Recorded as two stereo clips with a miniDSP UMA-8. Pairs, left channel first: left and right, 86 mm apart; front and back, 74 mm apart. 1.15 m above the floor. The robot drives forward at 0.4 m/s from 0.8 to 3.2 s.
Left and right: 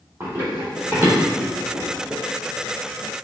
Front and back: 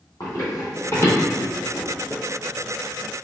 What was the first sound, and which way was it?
Running footsteps, 25° right.